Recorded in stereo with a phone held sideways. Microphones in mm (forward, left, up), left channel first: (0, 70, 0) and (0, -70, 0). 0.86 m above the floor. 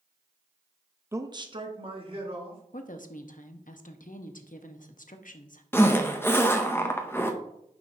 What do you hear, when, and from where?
1.1 s a man speaking: 15° right (ahead or behind), 0.5 m; by 2.6 s 40° right (ahead or behind), 2.5 m
2.7 s a woman speaking: 70° left (ahead or behind), 0.8 m
5.7 s a zipper: 15° left (ahead or behind), 0.8 m